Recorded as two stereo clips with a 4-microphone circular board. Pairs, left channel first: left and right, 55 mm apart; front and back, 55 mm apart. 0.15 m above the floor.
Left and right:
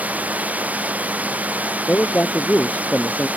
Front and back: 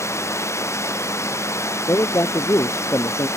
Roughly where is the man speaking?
Ahead left.